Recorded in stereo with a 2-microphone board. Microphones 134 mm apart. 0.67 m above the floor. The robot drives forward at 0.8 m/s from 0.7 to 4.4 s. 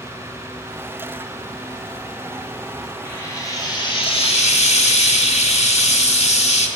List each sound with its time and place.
3.0 s frying: 20° left (ahead or behind), 1.5 m; by 6.7 s 55° left (ahead or behind), 0.7 m